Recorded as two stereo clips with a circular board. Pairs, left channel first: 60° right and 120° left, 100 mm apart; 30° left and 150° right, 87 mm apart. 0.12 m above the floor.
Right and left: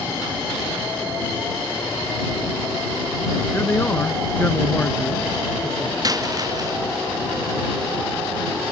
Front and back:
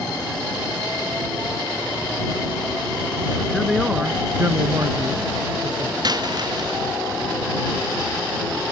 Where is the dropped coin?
170° left.